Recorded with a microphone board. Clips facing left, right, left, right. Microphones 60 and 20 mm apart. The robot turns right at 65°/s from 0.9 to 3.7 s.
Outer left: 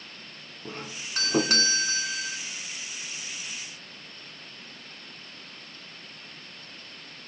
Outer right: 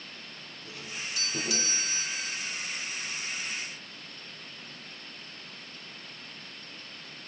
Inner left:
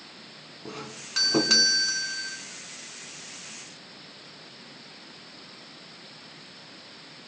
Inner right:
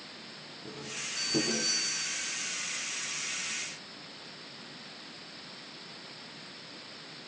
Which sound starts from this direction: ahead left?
A doorbell, at 0.7 s.